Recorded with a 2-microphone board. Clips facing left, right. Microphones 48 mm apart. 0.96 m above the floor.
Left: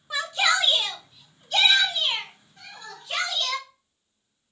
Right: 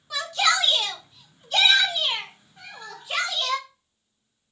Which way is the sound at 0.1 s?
20° left (ahead or behind).